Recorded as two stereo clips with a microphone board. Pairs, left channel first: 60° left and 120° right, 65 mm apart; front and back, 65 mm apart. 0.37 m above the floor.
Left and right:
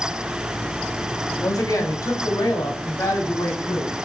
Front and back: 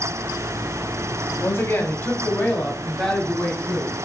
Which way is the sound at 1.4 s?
40° left.